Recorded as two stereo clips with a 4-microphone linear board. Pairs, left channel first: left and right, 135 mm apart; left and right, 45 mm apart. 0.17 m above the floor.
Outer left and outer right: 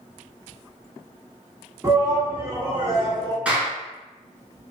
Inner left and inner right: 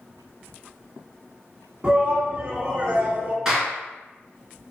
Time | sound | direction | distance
1.8 | a shout | 25° right (ahead or behind) | 1.6 m
3.5 | a clap | 10° right (ahead or behind) | 2.0 m